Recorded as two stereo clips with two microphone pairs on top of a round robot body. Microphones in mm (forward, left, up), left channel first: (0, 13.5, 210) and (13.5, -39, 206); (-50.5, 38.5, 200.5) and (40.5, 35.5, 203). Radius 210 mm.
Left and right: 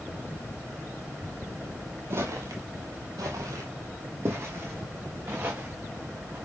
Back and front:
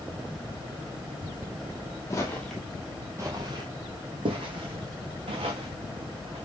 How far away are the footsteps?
About 1.1 m.